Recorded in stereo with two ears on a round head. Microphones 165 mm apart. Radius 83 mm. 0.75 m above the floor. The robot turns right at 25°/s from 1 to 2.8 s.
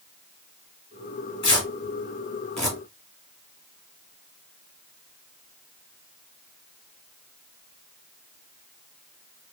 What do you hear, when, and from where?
1.4 s tearing paper: 30° left (ahead or behind), 1.6 m; by 2.8 s centre (ahead or behind), 1.6 m